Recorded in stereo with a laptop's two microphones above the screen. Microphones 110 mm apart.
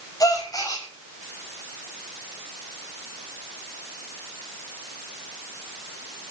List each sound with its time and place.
0.2 s a gasp: 35° left (ahead or behind), 6.5 m